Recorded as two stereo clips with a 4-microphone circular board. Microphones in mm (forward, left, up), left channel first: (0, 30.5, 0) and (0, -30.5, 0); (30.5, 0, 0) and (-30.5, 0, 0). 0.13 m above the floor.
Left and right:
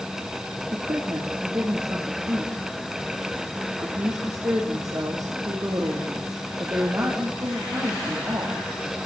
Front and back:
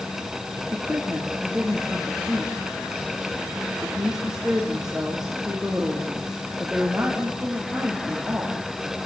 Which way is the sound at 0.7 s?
95° right.